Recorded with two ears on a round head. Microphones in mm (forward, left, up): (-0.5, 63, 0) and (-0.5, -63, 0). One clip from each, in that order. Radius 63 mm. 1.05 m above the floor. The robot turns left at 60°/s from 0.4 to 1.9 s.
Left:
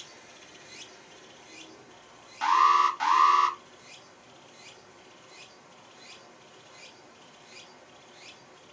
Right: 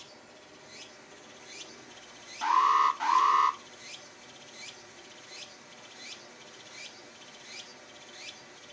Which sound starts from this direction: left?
An alarm, at 2.4 s.